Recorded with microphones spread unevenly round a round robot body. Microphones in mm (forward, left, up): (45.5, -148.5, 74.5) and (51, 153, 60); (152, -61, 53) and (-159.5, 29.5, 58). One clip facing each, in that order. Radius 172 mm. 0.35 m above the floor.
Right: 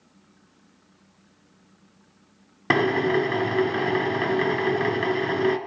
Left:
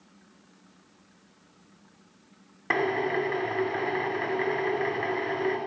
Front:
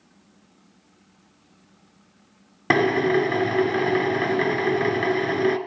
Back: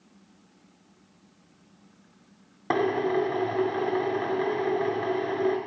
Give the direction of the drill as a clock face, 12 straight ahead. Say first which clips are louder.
Right 6 dB, front 5 dB; 2 o'clock.